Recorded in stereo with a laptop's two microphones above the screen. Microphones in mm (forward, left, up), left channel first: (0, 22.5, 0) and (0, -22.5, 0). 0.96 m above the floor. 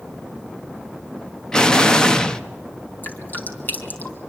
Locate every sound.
1.5 s an explosion: 15° left (ahead or behind), 0.9 m
3.0 s dripping: 45° left (ahead or behind), 3.5 m